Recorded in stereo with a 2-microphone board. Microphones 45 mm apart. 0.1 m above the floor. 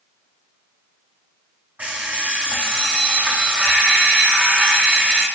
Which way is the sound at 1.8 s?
40° right (ahead or behind).